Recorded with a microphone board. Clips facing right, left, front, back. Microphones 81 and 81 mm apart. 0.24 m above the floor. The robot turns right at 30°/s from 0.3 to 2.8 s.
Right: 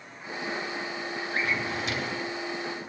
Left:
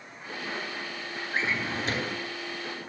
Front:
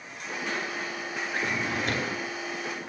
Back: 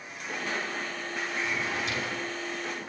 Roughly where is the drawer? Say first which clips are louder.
Left 1 dB, front 3 dB; ahead left.